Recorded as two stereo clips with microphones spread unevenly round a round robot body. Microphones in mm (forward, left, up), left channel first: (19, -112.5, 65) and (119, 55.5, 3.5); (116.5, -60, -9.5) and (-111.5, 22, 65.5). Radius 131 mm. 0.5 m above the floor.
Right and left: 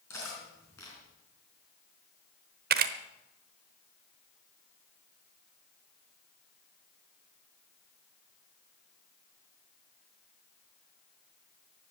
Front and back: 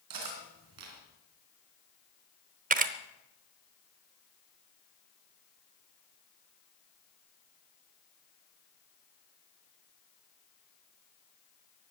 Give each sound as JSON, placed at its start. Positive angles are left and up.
{"t": 0.1, "sound": "cutlery clinking", "azimuth_deg": 160, "distance_m": 4.0}
{"t": 2.7, "sound": "a camera shutter", "azimuth_deg": 95, "distance_m": 0.8}